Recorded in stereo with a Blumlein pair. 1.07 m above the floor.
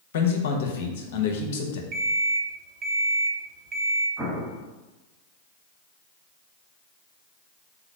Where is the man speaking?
55° left, 0.8 m.